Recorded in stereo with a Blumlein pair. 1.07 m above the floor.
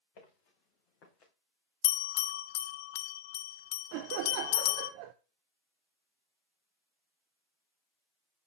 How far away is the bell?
About 0.5 m.